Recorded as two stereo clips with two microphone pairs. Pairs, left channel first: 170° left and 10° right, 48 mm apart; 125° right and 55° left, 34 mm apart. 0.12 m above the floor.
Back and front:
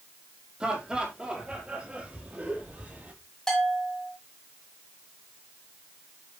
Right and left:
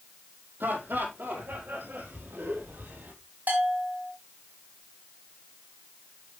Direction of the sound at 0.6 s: 60° left.